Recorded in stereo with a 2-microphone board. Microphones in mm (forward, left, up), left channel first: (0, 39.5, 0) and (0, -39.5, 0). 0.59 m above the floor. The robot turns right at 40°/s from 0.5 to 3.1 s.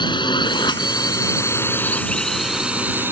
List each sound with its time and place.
0.0 s a drone: 75° left (ahead or behind); by 3.1 s 25° right (ahead or behind)